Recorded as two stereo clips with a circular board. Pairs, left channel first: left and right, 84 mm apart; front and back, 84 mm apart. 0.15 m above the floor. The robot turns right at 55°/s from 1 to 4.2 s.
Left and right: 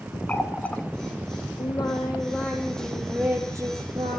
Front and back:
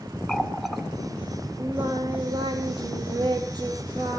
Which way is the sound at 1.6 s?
105° left.